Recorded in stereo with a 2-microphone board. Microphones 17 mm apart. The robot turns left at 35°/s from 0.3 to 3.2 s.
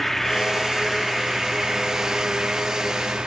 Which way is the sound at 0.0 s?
15° left.